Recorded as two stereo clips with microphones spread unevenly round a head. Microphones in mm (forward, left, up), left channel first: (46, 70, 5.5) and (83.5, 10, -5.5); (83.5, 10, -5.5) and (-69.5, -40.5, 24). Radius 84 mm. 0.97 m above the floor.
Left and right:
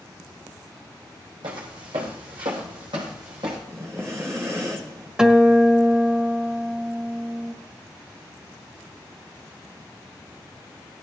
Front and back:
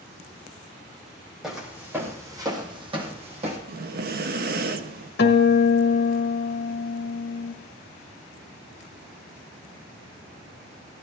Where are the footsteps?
80° right, 3 m; by 3.6 s 120° right, 3 m.